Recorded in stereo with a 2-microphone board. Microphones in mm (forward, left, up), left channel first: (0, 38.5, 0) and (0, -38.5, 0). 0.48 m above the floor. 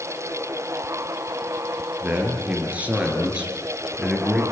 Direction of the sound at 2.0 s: 25° right (ahead or behind).